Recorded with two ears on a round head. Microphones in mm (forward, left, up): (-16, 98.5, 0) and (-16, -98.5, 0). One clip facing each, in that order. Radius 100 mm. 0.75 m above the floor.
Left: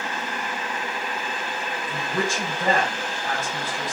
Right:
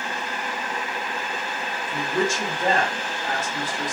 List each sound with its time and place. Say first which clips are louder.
1.9 s a woman speaking: right 3 dB; 45° left (ahead or behind), 1.6 m